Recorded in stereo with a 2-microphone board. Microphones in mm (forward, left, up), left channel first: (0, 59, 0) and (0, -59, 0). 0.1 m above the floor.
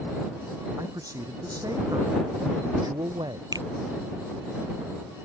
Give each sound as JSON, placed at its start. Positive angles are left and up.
{"t": 0.8, "sound": "a man speaking", "side_deg": -30}
{"t": 3.5, "sound": "a finger snap", "side_deg": -35}